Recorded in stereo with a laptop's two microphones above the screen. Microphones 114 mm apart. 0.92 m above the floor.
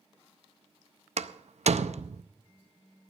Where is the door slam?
75° right (ahead or behind), 0.6 m.